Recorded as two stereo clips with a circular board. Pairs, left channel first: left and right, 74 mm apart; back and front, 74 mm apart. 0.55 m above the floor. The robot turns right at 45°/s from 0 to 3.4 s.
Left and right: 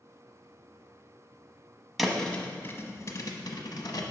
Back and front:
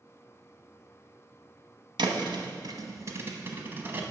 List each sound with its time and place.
2.0 s a thud: straight ahead, 1.0 m; by 4.0 s 60° left, 1.0 m